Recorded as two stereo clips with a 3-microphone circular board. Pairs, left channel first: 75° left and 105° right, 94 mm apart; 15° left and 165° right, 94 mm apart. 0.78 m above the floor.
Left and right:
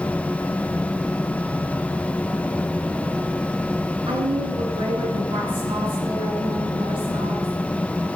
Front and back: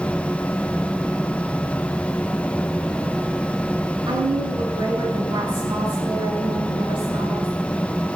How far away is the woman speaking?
About 8 m.